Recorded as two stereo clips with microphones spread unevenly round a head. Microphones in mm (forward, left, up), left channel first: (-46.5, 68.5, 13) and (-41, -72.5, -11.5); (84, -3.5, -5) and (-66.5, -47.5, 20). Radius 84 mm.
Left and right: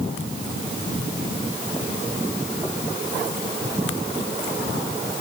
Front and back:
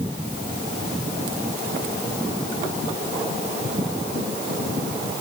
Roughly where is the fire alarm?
I don't hear a fire alarm.